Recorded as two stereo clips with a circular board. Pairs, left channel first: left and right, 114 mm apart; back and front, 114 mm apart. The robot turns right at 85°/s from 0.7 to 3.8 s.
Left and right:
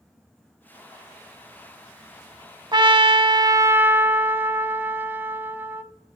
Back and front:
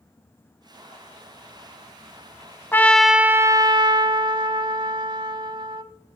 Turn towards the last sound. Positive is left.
turn(degrees=-25)